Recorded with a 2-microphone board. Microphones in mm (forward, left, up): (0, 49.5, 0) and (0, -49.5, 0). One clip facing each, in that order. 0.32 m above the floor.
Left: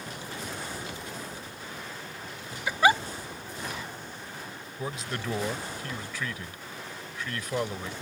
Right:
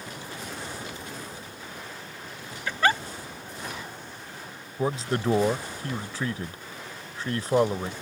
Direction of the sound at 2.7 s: 10° left (ahead or behind).